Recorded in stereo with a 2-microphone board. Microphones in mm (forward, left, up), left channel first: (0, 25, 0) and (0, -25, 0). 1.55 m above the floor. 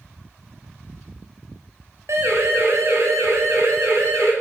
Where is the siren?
65° right (ahead or behind), 9.5 m; by 4.3 s 70° right (ahead or behind), 11 m.